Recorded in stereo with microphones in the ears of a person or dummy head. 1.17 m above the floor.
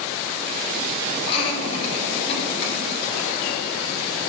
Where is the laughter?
40° left (ahead or behind), 5.5 m; by 3.0 s 45° left (ahead or behind), 7 m.